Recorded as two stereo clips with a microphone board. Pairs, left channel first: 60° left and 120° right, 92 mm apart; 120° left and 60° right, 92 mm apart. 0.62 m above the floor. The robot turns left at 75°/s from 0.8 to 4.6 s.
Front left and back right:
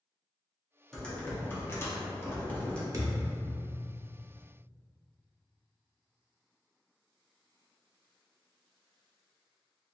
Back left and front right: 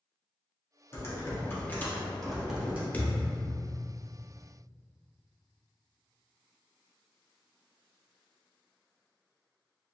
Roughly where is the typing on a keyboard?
Behind left.